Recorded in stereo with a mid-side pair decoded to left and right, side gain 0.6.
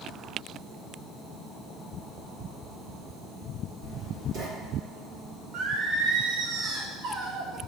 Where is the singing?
65° right, 1.2 m.